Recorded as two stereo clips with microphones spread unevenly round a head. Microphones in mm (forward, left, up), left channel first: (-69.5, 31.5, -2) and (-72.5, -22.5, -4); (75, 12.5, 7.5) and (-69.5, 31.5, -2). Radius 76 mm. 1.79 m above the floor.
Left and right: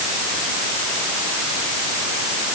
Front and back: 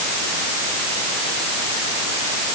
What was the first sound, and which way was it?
Only background noise.